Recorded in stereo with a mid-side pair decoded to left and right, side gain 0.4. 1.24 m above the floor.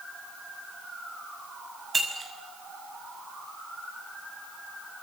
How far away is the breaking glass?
About 6 m.